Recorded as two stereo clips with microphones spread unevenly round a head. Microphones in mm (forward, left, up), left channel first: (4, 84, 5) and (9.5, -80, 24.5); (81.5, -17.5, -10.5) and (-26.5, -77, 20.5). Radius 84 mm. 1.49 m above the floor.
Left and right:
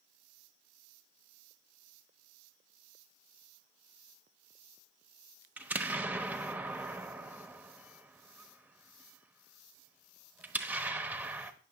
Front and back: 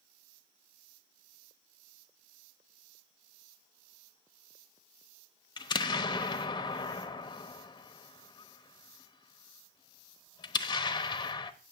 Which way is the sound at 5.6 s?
25° right.